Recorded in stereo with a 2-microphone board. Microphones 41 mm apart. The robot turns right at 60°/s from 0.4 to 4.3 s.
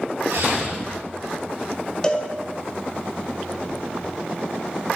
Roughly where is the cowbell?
Left.